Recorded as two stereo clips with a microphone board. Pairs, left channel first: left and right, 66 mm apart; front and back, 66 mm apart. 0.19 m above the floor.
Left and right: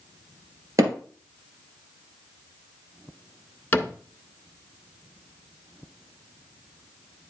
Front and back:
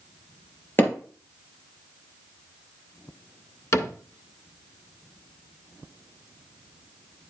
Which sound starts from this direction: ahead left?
A cupboard door, at 3.7 s.